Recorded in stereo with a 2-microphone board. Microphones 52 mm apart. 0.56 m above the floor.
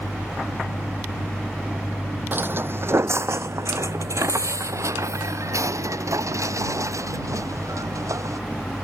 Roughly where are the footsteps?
Right.